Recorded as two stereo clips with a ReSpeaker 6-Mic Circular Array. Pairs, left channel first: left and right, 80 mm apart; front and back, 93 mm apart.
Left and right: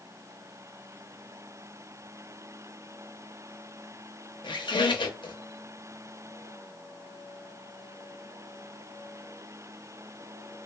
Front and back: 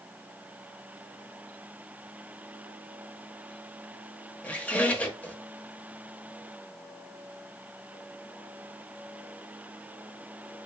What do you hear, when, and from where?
4.4 s a squeak: 75° left, 0.5 m